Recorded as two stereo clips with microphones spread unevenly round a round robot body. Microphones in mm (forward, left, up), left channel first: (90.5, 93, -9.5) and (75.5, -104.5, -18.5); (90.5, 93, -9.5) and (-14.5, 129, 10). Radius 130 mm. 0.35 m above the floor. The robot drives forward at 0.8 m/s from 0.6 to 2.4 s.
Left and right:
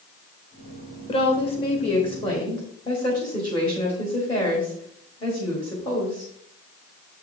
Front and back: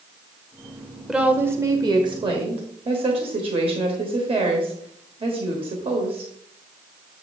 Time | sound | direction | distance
1.1 | a woman speaking | 60° left | 1.2 m